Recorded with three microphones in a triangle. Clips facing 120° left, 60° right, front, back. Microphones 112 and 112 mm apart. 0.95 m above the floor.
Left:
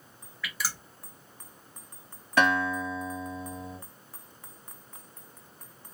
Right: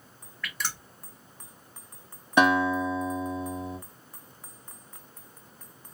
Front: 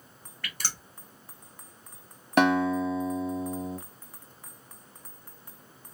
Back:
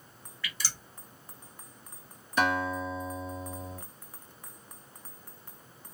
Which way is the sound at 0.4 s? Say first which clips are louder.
Even, front 1 dB; 35° left.